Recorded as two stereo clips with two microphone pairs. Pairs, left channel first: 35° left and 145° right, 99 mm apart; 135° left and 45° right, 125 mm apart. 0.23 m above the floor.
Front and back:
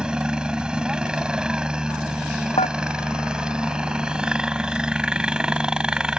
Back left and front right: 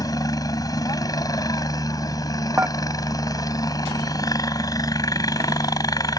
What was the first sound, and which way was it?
A helicopter, 140° left.